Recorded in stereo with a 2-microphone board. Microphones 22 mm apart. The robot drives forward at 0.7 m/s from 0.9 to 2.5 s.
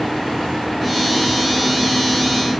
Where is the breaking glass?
I don't hear breaking glass.